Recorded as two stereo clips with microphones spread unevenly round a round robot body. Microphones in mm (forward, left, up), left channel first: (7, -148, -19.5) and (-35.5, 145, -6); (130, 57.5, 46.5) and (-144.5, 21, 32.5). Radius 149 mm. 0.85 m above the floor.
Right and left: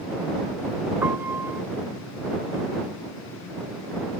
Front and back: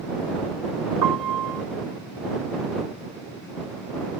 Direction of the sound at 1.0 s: Straight behind.